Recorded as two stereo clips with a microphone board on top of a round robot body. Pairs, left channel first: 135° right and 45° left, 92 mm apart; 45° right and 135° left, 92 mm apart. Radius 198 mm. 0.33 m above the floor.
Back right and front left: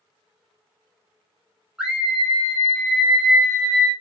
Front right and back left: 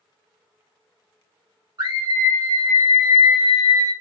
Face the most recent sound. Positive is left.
turn(degrees=145)